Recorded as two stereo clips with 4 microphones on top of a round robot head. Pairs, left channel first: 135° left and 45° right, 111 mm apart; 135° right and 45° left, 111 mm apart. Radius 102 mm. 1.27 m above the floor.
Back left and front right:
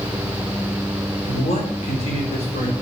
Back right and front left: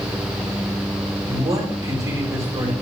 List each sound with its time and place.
1.3 s a man speaking: 110° left, 4.5 m